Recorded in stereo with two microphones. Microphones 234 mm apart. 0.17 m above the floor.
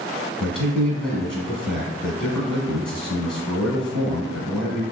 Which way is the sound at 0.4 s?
5° left (ahead or behind).